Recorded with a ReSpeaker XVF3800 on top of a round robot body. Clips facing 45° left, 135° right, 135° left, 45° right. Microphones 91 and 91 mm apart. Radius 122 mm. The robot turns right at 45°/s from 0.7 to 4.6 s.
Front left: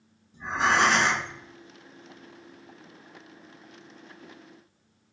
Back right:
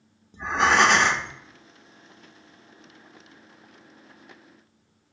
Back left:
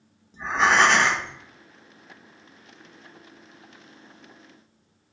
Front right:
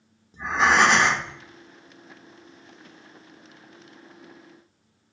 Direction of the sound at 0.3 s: 130° right.